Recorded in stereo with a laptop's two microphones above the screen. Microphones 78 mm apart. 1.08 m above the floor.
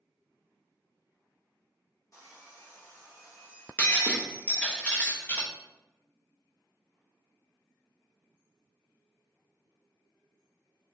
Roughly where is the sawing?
Left.